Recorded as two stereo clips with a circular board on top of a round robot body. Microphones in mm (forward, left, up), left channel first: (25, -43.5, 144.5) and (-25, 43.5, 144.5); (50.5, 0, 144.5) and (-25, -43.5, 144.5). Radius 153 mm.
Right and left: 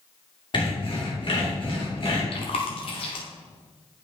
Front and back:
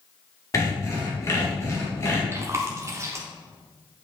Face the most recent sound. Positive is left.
turn(degrees=-90)